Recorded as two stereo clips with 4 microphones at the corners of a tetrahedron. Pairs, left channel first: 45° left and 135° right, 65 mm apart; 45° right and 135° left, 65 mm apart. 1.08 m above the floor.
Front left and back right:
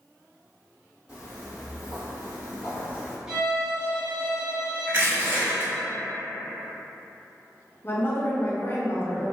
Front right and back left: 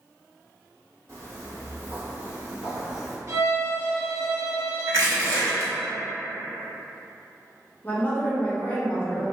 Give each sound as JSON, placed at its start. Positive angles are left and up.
{"t": 1.1, "sound": "footsteps", "azimuth_deg": 160, "distance_m": 1.7}
{"t": 3.3, "sound": "a violin", "azimuth_deg": 155, "distance_m": 0.9}
{"t": 4.9, "sound": "crushing", "azimuth_deg": 170, "distance_m": 1.4}
{"t": 7.8, "sound": "a woman speaking", "azimuth_deg": 10, "distance_m": 0.6}